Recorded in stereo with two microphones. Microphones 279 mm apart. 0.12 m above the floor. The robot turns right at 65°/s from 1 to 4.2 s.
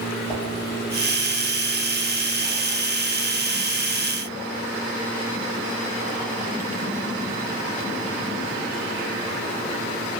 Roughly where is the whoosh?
Left.